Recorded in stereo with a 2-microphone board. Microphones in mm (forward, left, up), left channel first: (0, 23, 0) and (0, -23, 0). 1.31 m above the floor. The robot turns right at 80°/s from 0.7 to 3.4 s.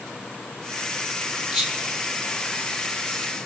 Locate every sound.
1.5 s whispering: 5° right (ahead or behind), 2 m; by 3.2 s 45° left (ahead or behind), 2 m